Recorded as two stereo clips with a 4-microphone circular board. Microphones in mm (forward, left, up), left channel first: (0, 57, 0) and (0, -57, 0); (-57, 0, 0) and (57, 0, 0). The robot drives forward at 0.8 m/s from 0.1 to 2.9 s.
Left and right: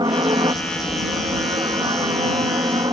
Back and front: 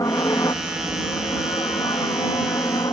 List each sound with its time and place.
0.0 s a helicopter: 125° right; by 2.9 s 130° right